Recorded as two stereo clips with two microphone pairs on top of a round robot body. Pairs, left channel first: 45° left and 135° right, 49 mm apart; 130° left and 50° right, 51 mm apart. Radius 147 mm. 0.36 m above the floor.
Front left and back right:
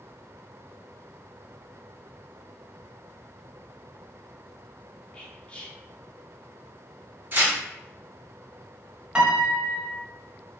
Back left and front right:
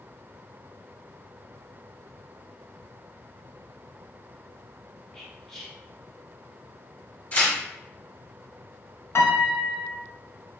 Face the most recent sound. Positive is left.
turn(degrees=155)